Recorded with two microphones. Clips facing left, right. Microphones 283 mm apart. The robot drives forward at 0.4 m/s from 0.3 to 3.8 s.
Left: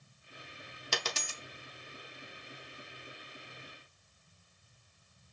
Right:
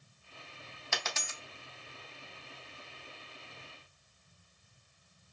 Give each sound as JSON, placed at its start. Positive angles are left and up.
{"t": 0.9, "sound": "a dropped coin", "side_deg": 40, "distance_m": 0.8}